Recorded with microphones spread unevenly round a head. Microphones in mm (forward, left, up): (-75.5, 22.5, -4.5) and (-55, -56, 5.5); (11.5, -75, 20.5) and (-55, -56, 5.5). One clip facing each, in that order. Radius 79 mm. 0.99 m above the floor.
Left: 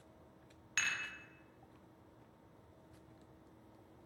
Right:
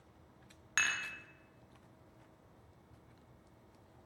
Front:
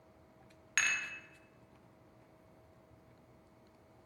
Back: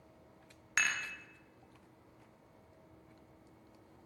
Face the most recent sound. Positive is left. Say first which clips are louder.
# right 4 dB, back 1 dB
turn(degrees=-125)